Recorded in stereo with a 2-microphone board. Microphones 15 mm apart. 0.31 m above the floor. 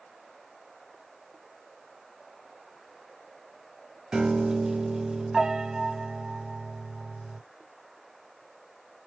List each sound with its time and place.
4.1 s a piano: 55° right (ahead or behind), 0.6 m